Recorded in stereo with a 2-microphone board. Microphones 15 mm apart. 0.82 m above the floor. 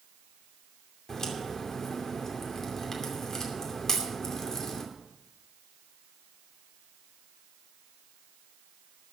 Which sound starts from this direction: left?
A crack, at 1.1 s.